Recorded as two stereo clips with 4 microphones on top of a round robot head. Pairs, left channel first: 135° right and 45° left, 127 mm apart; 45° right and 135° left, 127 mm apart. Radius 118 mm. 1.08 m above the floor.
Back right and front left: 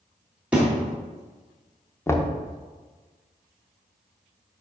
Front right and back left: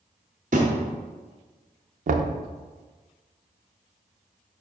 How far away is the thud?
About 0.7 m.